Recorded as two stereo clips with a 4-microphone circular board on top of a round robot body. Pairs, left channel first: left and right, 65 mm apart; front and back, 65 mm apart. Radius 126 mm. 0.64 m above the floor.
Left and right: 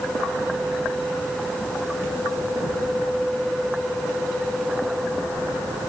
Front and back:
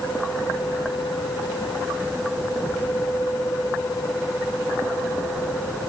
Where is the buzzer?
No buzzer in this recording.